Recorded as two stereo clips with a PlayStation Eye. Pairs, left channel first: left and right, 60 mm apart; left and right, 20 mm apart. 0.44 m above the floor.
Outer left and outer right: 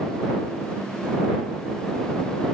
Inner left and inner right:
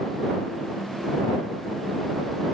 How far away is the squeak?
No squeak in this recording.